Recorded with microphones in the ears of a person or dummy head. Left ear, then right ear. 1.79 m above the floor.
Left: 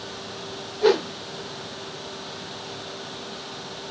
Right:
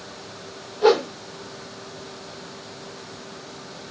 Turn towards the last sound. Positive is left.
turn(degrees=5)  # may be behind; listen again after turning